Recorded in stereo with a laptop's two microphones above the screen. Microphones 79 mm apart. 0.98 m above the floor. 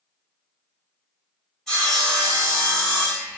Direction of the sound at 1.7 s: 5° left (ahead or behind).